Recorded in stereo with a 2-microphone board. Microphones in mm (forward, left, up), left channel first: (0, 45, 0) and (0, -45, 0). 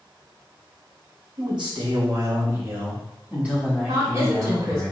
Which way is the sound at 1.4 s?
60° right (ahead or behind).